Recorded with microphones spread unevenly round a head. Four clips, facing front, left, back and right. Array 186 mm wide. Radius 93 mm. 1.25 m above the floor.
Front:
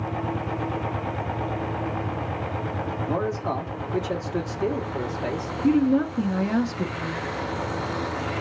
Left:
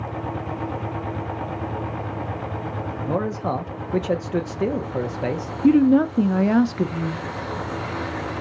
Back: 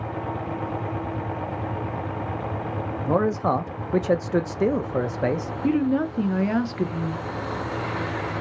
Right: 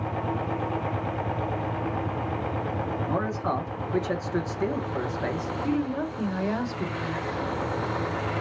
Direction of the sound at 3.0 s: 150° left.